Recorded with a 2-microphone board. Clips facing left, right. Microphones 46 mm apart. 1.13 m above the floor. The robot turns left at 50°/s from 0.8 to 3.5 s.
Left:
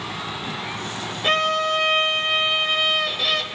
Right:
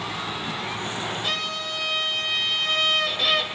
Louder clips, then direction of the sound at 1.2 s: Left 8 dB; 100° left.